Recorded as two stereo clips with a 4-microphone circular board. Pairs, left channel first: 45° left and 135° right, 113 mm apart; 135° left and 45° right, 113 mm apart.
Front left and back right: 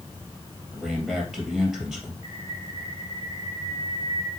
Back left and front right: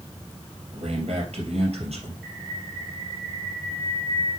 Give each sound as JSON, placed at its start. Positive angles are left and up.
{"t": 0.7, "sound": "a man speaking", "azimuth_deg": -50, "distance_m": 3.5}
{"t": 2.2, "sound": "a bird", "azimuth_deg": 40, "distance_m": 1.6}